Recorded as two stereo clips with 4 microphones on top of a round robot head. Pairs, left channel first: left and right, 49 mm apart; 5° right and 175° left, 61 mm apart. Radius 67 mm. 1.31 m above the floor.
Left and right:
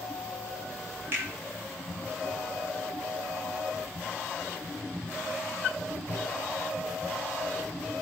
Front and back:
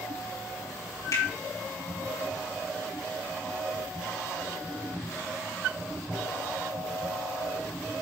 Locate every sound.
1.1 s a finger snap: 40° right, 4 m